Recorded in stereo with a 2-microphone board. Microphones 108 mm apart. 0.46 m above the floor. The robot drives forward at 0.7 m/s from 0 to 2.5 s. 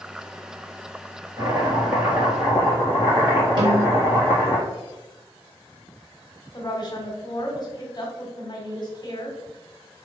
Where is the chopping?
30° right (ahead or behind), 1.4 m; by 4.6 s 20° right (ahead or behind), 2 m.